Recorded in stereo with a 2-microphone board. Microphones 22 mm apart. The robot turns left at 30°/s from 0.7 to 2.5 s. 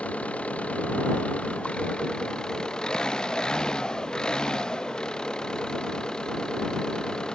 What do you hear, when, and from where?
0.0 s an engine running: 90° left; by 7.3 s 35° left